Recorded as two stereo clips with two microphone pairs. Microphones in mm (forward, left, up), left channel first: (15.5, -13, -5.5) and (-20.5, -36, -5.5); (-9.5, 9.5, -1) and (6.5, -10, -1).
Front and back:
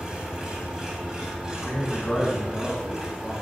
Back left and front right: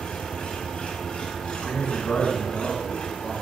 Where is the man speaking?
115° left, 3 m.